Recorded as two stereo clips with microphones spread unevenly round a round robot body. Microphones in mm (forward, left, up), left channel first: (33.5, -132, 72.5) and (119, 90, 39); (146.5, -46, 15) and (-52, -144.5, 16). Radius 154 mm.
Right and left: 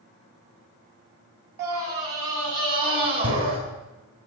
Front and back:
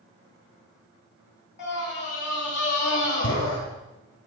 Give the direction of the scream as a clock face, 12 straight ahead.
10 o'clock.